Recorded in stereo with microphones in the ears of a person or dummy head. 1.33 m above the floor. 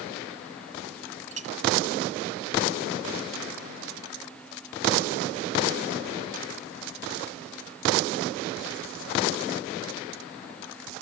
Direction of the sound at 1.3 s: 40° right (ahead or behind).